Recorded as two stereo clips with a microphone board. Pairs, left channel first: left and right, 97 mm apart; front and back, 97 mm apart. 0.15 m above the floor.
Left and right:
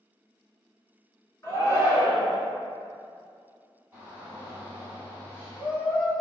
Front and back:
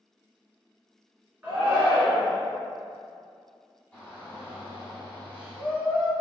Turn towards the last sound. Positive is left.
turn(degrees=-50)